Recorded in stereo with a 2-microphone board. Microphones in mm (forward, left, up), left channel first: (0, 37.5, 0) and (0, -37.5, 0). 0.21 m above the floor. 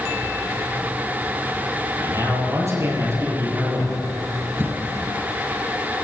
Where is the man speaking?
45° right (ahead or behind), 6 m.